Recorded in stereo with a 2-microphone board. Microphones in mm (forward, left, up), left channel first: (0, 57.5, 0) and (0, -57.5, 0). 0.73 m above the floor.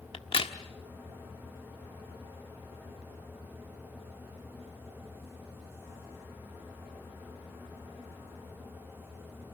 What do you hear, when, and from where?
0.1 s a crack: 50° left (ahead or behind), 1.2 m